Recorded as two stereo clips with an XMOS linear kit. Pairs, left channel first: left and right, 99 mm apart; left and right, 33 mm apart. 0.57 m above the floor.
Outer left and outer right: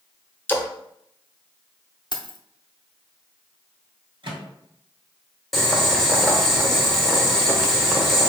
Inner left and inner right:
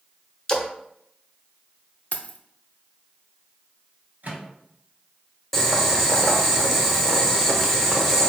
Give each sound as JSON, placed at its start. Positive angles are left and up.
{"t": 0.5, "sound": "a splash", "side_deg": 20, "distance_m": 0.7}
{"t": 2.1, "sound": "keys jangling", "side_deg": 50, "distance_m": 0.6}
{"t": 4.2, "sound": "a microwave", "side_deg": -60, "distance_m": 1.5}
{"t": 5.5, "sound": "boiling", "side_deg": 0, "distance_m": 1.0}